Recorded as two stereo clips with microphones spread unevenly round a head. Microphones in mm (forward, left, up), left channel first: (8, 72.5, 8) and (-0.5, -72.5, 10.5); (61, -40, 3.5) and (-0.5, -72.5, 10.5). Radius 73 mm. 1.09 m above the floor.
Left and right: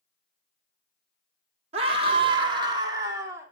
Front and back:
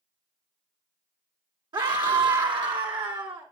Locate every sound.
1.7 s a scream: 145° right, 3 m; by 3.5 s 165° right, 3.5 m